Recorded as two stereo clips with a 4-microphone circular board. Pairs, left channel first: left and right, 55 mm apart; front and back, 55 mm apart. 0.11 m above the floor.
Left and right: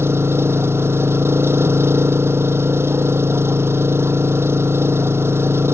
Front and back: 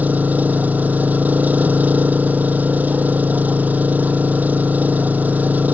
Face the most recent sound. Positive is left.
turn(degrees=-125)